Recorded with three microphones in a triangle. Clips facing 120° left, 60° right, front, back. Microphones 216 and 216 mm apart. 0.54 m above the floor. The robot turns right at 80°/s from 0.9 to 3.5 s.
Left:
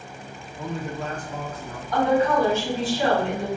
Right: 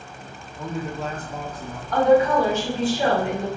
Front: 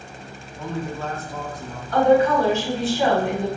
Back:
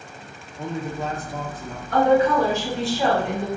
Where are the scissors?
I don't hear scissors.